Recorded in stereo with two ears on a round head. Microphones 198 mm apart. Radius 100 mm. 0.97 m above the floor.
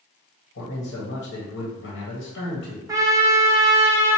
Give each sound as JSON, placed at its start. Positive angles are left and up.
{"t": 0.6, "sound": "a man speaking", "side_deg": 55, "distance_m": 1.1}
{"t": 2.9, "sound": "a trumpet", "side_deg": -15, "distance_m": 0.5}